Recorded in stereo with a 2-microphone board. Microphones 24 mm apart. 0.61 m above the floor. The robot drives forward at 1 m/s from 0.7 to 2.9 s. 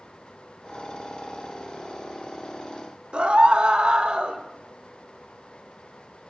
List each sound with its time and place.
3.1 s a scream: 50° right (ahead or behind), 2.5 m